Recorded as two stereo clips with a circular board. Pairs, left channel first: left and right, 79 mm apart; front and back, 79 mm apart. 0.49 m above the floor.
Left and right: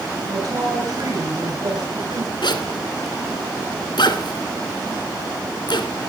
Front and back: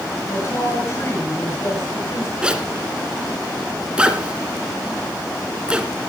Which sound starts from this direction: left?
A zipper, at 2.4 s.